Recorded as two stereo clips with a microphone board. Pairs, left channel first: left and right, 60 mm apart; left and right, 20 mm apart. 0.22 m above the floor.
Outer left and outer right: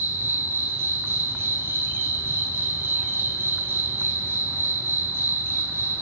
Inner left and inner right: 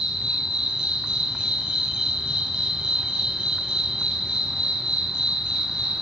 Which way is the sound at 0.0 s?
45° right (ahead or behind).